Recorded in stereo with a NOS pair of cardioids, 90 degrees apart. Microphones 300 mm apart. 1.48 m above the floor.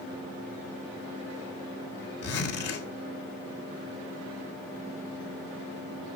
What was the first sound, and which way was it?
A zipper, 55° left.